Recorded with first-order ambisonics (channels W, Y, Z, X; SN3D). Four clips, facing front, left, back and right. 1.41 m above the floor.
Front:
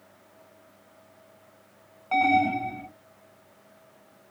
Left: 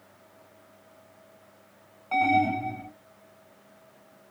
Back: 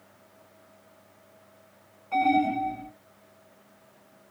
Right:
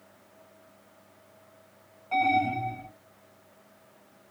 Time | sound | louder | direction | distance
2.1 | an alarm | left 2 dB, front 1 dB | 15° left | 2 m